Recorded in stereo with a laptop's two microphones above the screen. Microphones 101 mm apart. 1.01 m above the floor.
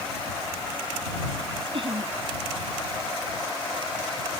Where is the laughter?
60° right (ahead or behind).